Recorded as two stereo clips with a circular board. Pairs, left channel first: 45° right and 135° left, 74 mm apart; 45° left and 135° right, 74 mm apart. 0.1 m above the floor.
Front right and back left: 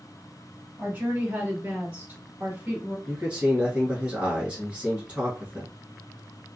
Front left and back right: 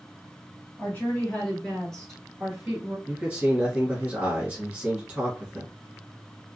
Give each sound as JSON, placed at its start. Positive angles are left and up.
{"t": 0.8, "sound": "a woman speaking", "azimuth_deg": 85, "distance_m": 2.0}
{"t": 3.1, "sound": "a man speaking", "azimuth_deg": 180, "distance_m": 1.4}